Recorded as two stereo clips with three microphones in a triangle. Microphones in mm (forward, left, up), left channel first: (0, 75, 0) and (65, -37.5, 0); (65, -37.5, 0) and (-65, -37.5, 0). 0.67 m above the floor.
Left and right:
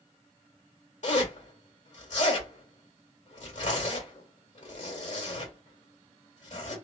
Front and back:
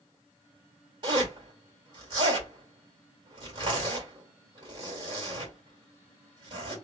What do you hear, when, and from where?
1.0 s a zipper: 130° left, 1.8 m